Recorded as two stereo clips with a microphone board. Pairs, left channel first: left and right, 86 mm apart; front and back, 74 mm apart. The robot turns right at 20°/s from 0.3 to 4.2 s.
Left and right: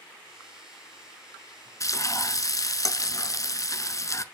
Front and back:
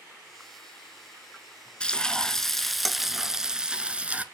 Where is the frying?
70° left, 0.6 m; by 4.2 s 115° left, 0.6 m.